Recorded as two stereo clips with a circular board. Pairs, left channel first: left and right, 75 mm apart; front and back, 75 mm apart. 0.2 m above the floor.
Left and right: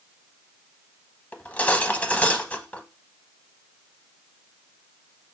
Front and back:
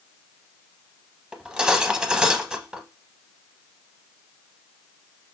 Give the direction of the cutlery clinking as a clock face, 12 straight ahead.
8 o'clock.